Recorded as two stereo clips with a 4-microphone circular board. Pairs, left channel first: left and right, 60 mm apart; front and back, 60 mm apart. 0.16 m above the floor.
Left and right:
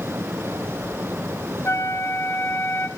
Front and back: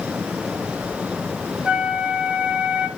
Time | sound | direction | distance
1.6 | a flute | 115° left | 1.3 m